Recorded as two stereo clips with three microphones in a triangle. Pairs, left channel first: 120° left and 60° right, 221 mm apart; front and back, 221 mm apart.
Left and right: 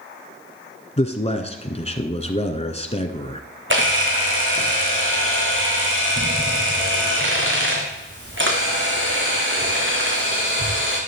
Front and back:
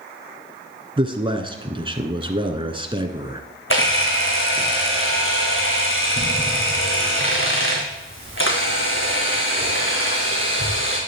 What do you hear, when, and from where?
1.0 s a man speaking: 140° left, 1.2 m
3.7 s a camera shutter: 30° right, 3 m